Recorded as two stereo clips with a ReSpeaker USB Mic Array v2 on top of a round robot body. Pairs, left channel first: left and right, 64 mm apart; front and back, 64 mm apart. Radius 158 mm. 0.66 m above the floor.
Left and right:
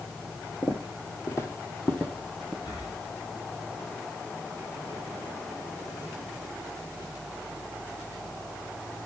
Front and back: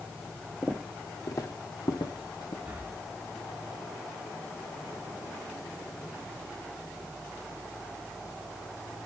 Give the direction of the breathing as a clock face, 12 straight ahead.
8 o'clock.